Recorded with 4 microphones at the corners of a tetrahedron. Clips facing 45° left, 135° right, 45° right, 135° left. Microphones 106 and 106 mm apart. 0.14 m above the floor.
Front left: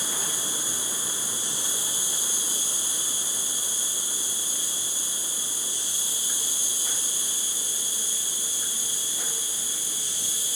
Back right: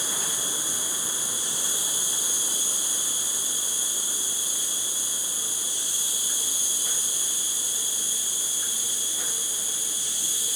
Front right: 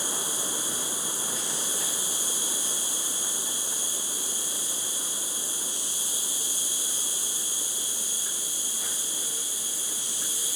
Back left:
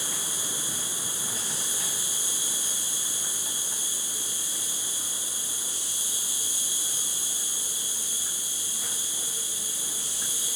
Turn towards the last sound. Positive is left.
turn(degrees=65)